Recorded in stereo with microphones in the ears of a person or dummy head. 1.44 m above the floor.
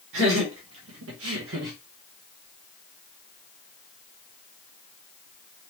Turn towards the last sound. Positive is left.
turn(degrees=-55)  # may be behind; listen again after turning